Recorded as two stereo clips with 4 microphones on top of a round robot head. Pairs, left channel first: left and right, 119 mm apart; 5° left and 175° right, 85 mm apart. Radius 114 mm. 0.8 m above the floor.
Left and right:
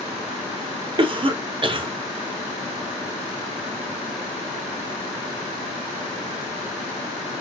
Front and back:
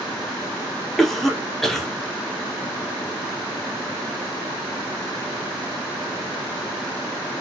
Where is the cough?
80° right, 0.7 m.